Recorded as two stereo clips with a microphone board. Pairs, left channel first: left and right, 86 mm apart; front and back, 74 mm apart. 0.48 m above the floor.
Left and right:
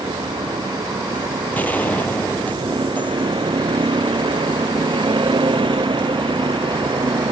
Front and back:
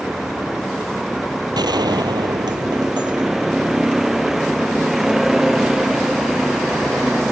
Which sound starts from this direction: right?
A vehicle, at 0.0 s.